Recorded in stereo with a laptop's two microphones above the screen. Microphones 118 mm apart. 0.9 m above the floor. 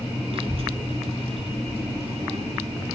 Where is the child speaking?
50° right (ahead or behind), 1.8 m; by 2.9 s 60° right (ahead or behind), 3 m.